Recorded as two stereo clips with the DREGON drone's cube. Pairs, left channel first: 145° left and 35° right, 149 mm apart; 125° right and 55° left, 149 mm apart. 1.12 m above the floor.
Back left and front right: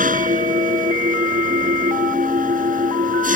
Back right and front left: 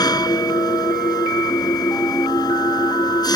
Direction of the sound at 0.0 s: 60° right.